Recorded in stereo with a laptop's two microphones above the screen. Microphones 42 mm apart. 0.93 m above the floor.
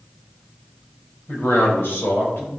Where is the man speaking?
75° left (ahead or behind), 3 m.